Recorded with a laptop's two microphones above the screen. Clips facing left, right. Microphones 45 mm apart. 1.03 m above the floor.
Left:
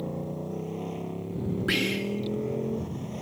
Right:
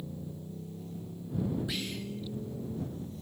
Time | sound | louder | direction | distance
0.0 | a motorcycle | left 9 dB | 65° left (ahead or behind) | ?
1.7 | whispering | left 10 dB | 75° left (ahead or behind) | ?